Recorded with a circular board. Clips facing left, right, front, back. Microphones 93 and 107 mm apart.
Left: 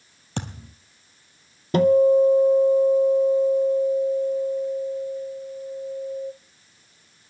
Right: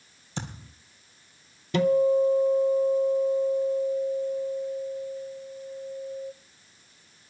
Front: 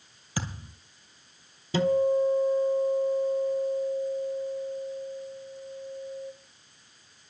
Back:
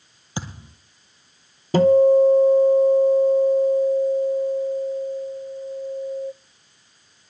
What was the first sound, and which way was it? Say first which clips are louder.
A thud: left 4 dB, back 2 dB; 115° left.